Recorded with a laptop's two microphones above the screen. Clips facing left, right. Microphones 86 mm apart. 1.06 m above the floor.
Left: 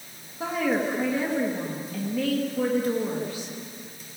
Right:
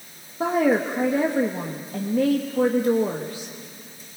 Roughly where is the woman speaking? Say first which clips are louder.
Right 5 dB; right.